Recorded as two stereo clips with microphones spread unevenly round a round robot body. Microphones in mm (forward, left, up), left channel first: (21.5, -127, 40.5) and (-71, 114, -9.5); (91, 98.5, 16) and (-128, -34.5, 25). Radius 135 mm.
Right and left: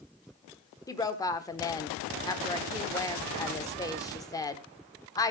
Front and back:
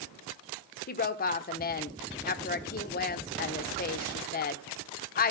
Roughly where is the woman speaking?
Ahead.